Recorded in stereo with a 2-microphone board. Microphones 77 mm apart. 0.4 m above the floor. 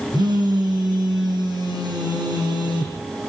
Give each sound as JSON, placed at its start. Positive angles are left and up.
{"t": 0.1, "sound": "a phone buzzing", "side_deg": -65, "distance_m": 8.5}